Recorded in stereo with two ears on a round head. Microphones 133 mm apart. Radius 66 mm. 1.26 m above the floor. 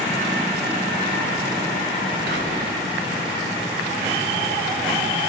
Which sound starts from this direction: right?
Whispering, at 2.3 s.